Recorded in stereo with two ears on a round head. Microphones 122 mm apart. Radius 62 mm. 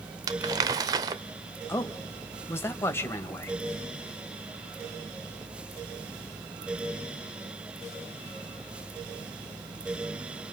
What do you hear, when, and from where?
0.3 s crumpling: 25° right (ahead or behind), 0.6 m
1.7 s a man speaking: 20° left (ahead or behind), 2 m